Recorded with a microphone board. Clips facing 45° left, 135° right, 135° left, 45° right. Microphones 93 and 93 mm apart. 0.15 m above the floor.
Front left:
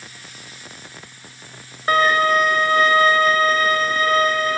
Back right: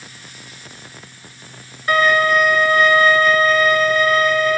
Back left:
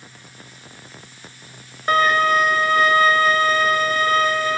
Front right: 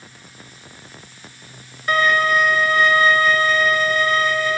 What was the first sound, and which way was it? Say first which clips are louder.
A violin: back right 1 dB, back left 1 dB; 95° left.